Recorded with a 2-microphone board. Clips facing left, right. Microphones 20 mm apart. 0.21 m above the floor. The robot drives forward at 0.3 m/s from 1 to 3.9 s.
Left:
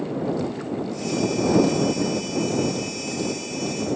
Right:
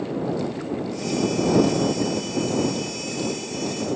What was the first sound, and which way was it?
Only background noise.